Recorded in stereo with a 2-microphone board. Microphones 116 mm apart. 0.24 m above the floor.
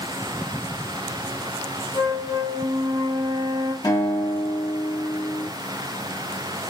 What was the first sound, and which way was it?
A flute, 45° right (ahead or behind).